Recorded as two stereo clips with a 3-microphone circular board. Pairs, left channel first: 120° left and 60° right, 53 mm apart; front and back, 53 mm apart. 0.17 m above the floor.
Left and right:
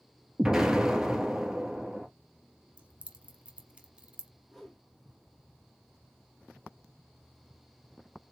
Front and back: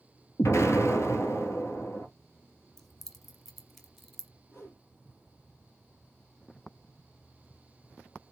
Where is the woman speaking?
I don't hear a woman speaking.